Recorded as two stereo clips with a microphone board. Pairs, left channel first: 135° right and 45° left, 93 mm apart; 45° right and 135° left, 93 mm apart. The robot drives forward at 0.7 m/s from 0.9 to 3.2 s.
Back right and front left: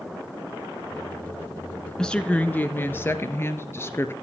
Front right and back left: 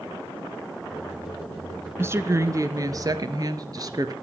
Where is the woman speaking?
150° left, 1.1 m; by 4.1 s 170° left, 1.6 m.